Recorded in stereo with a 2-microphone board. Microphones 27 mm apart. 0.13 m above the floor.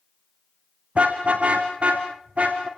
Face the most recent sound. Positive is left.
turn(degrees=-45)  # may be behind; listen again after turning